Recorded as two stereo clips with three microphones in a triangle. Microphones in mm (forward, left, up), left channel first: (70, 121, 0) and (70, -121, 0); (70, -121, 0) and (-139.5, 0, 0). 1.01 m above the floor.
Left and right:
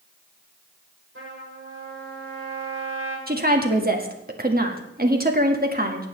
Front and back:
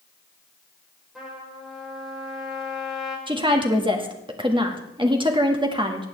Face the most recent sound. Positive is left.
turn(degrees=-140)